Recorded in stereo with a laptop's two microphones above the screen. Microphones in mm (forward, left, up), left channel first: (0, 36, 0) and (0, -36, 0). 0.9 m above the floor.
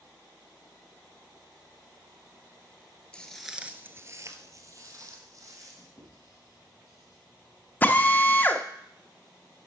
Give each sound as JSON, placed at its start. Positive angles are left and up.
{"t": 3.1, "sound": "footsteps", "side_deg": 10, "distance_m": 1.1}
{"t": 6.0, "sound": "writing", "side_deg": 45, "distance_m": 5.5}
{"t": 7.8, "sound": "a drill", "side_deg": 20, "distance_m": 0.7}